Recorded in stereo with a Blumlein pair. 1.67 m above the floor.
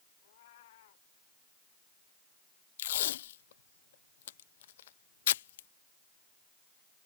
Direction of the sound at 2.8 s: 60° left.